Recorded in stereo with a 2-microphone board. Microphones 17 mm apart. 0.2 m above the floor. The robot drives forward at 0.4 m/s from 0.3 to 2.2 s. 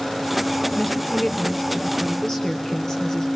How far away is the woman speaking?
About 4 m.